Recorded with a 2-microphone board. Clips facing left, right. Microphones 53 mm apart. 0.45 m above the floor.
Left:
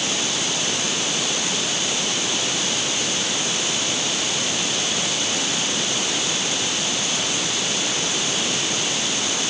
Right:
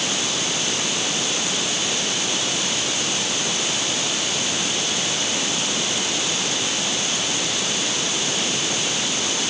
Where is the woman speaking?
No woman speaking in this recording.